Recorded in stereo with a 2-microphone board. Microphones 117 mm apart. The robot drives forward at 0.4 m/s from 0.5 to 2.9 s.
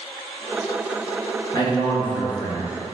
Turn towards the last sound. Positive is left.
turn(degrees=30)  # may be behind; listen again after turning